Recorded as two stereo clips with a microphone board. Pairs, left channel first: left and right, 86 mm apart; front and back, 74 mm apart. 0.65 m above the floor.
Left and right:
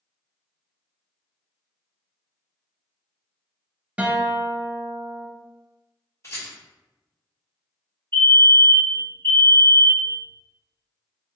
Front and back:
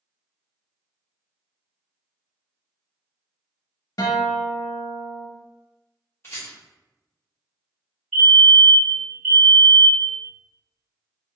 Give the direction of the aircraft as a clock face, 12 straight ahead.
I don't hear an aircraft.